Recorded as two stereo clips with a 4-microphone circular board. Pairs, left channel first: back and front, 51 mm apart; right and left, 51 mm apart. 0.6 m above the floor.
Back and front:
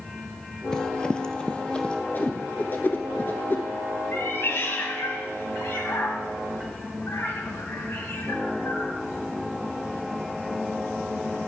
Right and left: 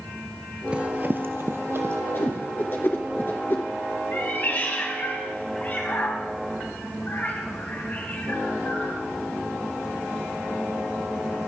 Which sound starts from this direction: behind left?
Running footsteps, at 0.7 s.